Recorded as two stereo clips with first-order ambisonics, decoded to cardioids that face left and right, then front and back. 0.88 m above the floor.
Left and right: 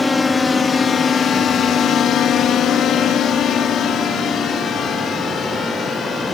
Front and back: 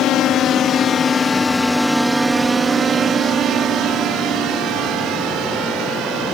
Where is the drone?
20° left; by 6.3 s 150° left.